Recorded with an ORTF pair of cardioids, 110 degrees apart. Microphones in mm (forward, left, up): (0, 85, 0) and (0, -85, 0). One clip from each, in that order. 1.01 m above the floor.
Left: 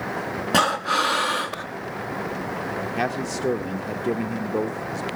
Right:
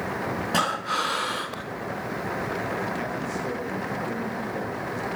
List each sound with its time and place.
0.5 s breathing: 20° left, 0.7 m
3.0 s a man speaking: 50° left, 0.7 m